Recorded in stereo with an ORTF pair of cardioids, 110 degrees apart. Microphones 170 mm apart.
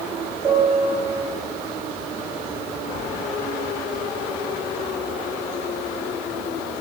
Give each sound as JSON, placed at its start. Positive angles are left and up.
{"t": 0.4, "sound": "a piano", "azimuth_deg": -30, "distance_m": 2.5}